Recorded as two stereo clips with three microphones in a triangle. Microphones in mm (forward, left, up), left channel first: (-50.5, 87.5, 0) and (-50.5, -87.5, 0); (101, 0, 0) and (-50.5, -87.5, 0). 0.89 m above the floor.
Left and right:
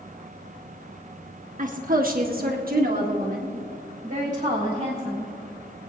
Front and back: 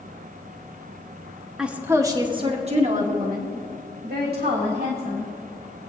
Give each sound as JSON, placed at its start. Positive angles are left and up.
{"t": 1.6, "sound": "a woman speaking", "azimuth_deg": -65, "distance_m": 1.5}